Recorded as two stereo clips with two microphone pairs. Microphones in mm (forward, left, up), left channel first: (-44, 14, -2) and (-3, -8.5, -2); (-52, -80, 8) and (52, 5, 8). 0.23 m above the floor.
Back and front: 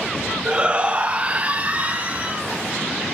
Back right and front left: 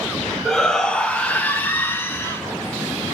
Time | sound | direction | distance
0.5 | a shout | 60° right | 1.2 m